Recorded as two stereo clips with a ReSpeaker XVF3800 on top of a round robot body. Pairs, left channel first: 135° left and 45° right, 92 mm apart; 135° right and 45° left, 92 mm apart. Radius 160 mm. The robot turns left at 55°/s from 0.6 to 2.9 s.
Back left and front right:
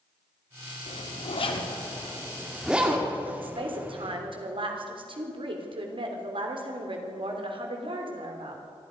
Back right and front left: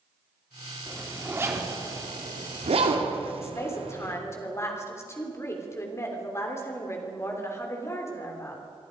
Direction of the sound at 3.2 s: 75° right.